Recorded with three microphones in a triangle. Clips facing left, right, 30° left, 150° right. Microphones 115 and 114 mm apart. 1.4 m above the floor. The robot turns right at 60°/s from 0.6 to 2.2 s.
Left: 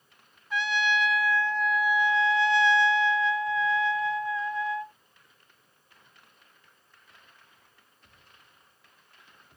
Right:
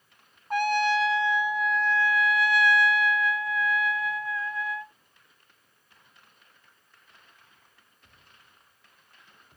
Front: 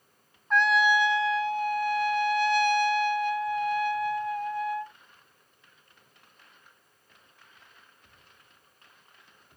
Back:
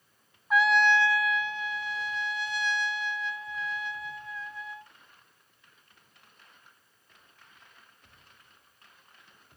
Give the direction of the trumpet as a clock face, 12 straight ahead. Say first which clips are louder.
Right 4 dB, even; 2 o'clock.